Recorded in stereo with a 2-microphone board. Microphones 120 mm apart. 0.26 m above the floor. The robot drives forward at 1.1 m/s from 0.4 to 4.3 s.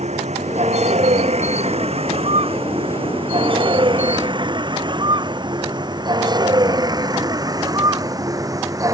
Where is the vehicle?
70° right (ahead or behind); by 8.9 s 30° right (ahead or behind).